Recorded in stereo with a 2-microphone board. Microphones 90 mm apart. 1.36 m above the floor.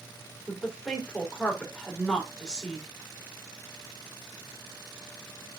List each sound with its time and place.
0.5 s a woman speaking: 10° left (ahead or behind), 3.5 m